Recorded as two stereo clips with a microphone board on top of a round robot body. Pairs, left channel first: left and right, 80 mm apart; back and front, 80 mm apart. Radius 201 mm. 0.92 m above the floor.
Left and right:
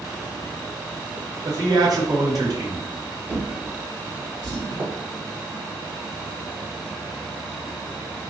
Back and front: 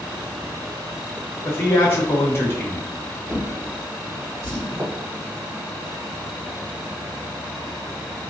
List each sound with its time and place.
1.4 s a man speaking: 125° right, 0.8 m
3.3 s a drawer: 60° right, 1.6 m
4.7 s footsteps: 55° right, 1.7 m